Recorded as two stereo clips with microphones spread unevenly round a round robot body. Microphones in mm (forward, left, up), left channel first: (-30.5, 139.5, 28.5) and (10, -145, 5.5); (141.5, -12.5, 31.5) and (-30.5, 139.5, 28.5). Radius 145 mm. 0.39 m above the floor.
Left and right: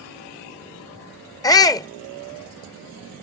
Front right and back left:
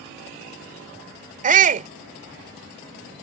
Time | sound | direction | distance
1.4 | a shout | 175° left | ?